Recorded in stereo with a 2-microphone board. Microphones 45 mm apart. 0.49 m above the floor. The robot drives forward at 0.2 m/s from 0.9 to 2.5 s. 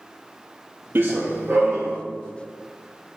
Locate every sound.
0.9 s running footsteps: 55° right (ahead or behind), 0.7 m; by 2.0 s 75° right (ahead or behind), 1.4 m